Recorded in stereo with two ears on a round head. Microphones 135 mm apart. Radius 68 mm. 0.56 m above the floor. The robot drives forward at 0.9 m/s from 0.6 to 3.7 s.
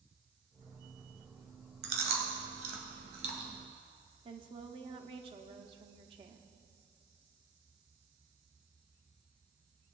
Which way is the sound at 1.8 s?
80° right.